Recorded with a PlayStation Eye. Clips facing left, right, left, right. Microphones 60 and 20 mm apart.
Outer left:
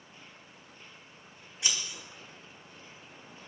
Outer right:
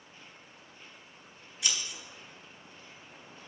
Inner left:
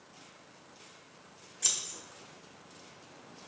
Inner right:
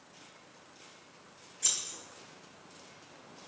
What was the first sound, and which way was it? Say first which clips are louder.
Scissors: even, inner left 1 dB; 30° left (ahead or behind).